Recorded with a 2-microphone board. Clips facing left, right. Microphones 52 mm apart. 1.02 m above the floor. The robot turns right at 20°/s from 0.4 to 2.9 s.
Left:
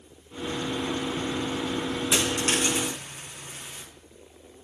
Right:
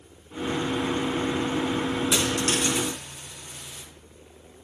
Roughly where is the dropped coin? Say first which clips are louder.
Right 1 dB; centre.